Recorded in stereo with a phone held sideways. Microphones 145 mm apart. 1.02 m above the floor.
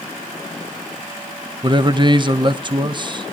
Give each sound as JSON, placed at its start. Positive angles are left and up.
{"t": 1.6, "sound": "a man speaking", "side_deg": -30, "distance_m": 1.1}